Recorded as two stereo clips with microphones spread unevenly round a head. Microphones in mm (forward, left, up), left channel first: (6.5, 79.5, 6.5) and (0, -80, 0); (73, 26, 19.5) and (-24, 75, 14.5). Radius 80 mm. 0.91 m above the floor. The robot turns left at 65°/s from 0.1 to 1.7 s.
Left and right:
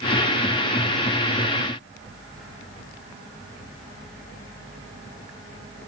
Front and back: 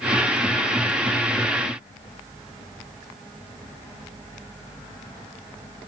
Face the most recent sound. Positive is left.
No sound to turn to.